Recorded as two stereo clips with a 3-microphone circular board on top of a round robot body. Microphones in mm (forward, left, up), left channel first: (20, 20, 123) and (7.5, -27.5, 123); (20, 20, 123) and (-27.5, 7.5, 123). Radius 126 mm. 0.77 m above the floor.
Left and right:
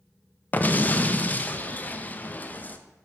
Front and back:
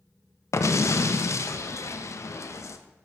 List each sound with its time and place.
0.5 s an explosion: 20° left, 0.5 m